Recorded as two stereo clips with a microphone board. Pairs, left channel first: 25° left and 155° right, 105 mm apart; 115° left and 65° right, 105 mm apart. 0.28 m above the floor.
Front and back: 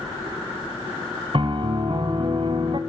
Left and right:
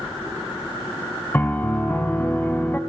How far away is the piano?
About 1.5 m.